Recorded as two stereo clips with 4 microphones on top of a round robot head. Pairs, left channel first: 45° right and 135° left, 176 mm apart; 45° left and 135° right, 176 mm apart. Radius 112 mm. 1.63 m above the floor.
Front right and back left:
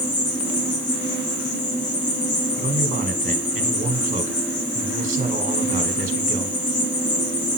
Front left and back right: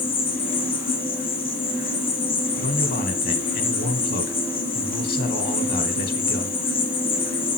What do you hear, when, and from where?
0.0 s an insect: 15° right, 1.7 m
2.6 s a man speaking: 85° left, 1.3 m